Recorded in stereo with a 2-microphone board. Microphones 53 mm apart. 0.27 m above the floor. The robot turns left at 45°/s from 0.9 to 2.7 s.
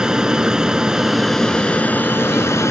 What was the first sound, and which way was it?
An aircraft, 165° right.